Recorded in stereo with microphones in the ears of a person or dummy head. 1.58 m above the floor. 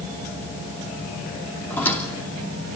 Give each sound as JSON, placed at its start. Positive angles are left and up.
{"t": 1.7, "sound": "a squeak", "side_deg": 15, "distance_m": 3.0}